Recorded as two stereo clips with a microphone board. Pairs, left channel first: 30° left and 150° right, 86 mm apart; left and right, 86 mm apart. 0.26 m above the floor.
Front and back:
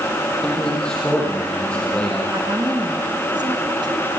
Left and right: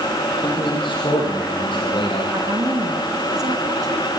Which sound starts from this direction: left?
A man speaking, at 0.4 s.